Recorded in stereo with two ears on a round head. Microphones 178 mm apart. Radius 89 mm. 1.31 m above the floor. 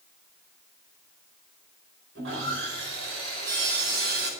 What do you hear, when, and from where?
2.1 s sawing: 80° right, 4 m